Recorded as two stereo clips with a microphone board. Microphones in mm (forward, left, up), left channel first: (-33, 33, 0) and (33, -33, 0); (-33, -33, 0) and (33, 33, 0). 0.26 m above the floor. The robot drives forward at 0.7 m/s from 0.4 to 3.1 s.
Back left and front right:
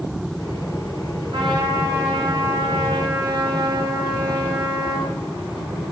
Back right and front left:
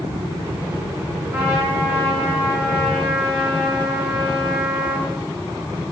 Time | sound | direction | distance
1.3 | a trumpet | 20° right | 2.5 m